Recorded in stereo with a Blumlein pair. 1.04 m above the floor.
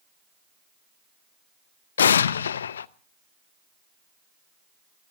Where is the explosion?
65° left, 0.7 m.